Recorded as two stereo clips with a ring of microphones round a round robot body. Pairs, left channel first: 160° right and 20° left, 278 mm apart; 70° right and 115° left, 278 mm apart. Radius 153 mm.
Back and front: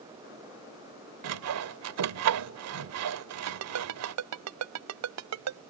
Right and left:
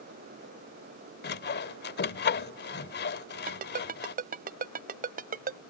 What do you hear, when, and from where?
1.2 s sawing: 10° right
3.5 s a ringtone: 50° left